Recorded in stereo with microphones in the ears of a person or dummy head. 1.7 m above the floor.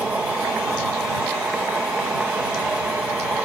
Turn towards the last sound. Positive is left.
turn(degrees=0)  # may be behind; listen again after turning